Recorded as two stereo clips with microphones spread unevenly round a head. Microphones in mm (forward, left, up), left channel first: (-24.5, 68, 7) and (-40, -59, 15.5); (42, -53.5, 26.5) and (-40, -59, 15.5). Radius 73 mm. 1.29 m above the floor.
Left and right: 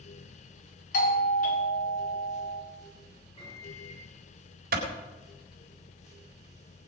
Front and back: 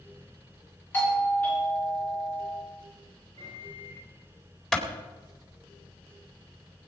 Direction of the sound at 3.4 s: 130° left.